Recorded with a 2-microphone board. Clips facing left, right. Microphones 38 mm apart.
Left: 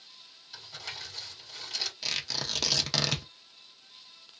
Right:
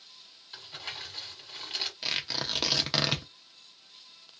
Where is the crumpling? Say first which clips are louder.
Right 1 dB; 25° right (ahead or behind), 1.8 m.